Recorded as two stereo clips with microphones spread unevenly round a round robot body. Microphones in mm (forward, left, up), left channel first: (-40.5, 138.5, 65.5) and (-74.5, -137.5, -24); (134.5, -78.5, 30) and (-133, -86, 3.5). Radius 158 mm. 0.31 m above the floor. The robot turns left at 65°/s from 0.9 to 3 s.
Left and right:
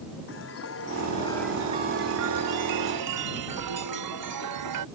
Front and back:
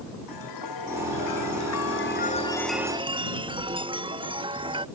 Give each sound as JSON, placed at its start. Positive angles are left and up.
{"t": 0.3, "sound": "a chime", "azimuth_deg": 30}